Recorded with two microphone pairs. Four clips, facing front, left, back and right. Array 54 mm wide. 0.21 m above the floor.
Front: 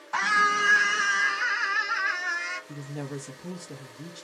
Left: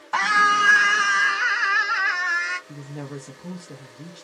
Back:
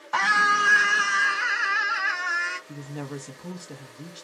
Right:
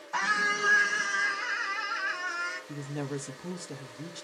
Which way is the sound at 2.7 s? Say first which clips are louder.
Even, back 1 dB; 150° right.